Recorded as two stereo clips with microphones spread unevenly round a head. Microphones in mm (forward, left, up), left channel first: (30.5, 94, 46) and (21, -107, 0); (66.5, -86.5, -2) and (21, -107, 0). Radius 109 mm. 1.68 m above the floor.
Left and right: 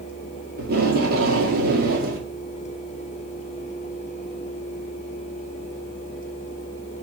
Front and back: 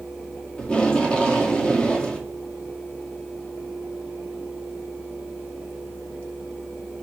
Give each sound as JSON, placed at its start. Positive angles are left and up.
{"t": 0.6, "sound": "tape being pulled", "azimuth_deg": -45, "distance_m": 1.8}